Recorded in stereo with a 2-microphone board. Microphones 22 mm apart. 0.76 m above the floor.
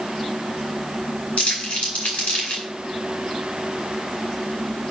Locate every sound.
1.4 s crumpling: 85° left, 4.5 m